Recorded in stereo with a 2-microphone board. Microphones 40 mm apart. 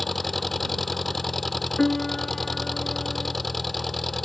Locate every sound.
0.0 s an engine running: 5° left (ahead or behind)
1.8 s a piano: 10° left (ahead or behind)